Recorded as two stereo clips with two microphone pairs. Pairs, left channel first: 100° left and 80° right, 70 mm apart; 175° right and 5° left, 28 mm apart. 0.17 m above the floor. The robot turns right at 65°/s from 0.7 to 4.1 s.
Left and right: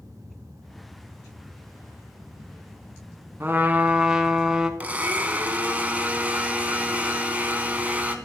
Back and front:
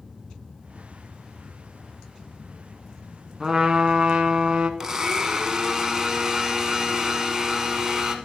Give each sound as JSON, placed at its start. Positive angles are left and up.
{"t": 3.4, "sound": "a trumpet", "azimuth_deg": -50, "distance_m": 0.7}
{"t": 4.8, "sound": "a blender", "azimuth_deg": -35, "distance_m": 0.8}